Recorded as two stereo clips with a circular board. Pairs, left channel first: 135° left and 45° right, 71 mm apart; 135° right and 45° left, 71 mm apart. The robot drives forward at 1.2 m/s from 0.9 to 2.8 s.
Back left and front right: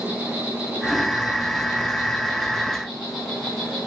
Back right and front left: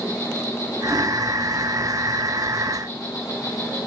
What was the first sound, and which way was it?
An insect, 110° right.